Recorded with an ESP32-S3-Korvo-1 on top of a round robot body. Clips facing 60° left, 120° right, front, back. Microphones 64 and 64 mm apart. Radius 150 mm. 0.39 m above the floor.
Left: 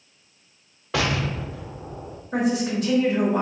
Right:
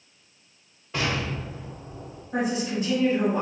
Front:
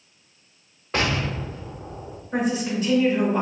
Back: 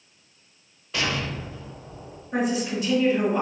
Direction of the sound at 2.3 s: 90° left.